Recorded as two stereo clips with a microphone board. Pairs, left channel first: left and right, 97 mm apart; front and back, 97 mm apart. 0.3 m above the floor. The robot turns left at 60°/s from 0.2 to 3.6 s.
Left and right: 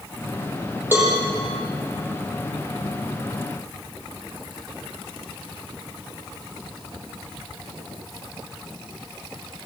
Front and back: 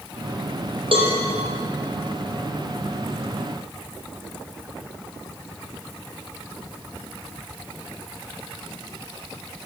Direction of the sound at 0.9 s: 155° right.